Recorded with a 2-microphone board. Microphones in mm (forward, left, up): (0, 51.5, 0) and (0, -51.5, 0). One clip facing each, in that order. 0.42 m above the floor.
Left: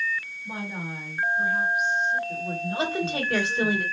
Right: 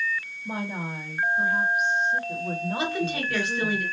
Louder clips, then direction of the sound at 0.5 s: Right 4 dB; 45° right (ahead or behind).